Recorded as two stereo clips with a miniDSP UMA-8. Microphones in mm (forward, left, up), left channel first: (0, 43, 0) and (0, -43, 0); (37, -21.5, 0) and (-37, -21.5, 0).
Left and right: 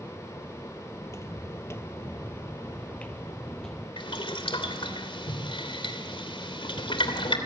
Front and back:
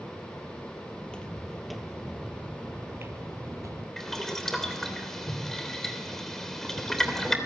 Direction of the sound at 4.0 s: 85° left.